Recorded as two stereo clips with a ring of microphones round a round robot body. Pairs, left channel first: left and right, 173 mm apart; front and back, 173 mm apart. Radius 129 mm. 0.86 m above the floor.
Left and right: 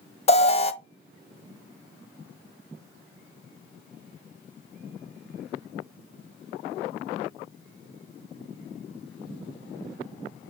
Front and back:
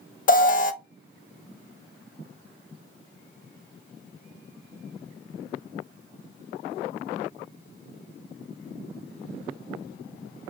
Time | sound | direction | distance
0.3 | an alarm | 35° left | 0.6 m